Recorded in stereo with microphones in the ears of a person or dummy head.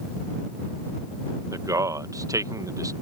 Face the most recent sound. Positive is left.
turn(degrees=-20)  # may be behind; listen again after turning